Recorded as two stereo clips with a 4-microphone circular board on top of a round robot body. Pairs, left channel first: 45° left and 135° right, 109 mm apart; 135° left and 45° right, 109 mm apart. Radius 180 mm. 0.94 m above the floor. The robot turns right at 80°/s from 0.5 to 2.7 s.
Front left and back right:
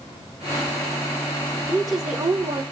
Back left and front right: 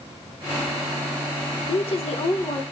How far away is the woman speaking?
About 1.1 m.